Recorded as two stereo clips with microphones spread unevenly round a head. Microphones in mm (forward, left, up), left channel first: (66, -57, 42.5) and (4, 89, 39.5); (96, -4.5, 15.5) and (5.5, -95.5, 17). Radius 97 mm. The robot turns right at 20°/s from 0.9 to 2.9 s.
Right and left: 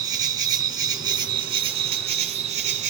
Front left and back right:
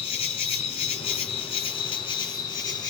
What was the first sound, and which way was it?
An insect, 60° left.